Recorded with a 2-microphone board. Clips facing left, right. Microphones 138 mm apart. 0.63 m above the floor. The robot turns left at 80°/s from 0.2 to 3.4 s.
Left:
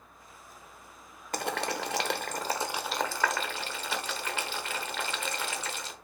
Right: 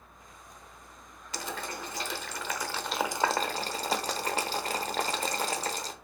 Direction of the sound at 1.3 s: 55° left (ahead or behind).